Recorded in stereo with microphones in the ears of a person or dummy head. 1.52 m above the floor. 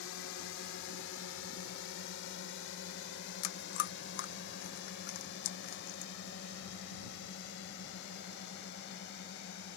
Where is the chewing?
60° left (ahead or behind).